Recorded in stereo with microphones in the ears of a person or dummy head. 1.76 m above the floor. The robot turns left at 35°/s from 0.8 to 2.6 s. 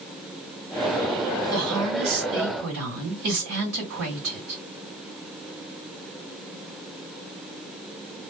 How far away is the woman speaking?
About 1.6 m.